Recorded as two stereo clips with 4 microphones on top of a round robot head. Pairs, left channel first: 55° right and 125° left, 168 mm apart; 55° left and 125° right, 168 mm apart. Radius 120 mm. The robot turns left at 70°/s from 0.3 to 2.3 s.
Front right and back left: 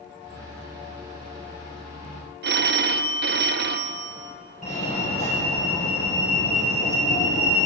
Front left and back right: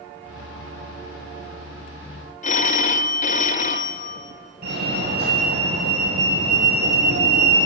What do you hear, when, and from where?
2.4 s a phone ringing: 100° left, 1.2 m
4.6 s a fire alarm: 100° right, 7.5 m